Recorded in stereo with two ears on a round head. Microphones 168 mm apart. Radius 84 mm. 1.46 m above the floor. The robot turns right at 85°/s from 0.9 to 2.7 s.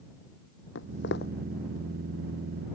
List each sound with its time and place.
0.8 s footsteps: 70° left (ahead or behind); by 1.3 s 50° left (ahead or behind)